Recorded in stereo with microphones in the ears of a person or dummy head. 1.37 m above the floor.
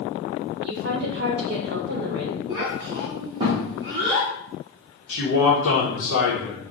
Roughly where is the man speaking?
Left.